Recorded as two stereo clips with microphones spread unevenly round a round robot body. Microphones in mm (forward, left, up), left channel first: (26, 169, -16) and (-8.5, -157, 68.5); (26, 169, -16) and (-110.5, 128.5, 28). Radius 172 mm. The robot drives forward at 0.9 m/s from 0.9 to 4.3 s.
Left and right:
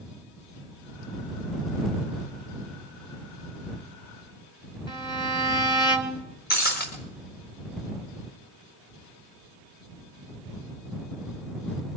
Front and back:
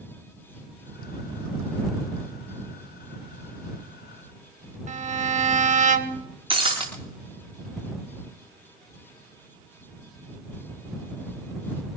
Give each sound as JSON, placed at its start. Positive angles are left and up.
{"t": 4.9, "sound": "a violin", "azimuth_deg": 160, "distance_m": 1.7}
{"t": 6.5, "sound": "breaking glass", "azimuth_deg": 150, "distance_m": 5.0}